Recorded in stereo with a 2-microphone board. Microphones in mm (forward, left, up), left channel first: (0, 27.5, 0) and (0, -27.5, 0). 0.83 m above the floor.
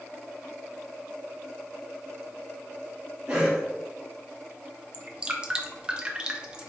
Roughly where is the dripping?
Centre.